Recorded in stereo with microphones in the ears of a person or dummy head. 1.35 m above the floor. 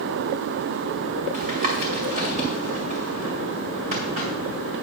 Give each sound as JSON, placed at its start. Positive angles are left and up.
{"t": 1.3, "sound": "tapping", "side_deg": -40, "distance_m": 2.0}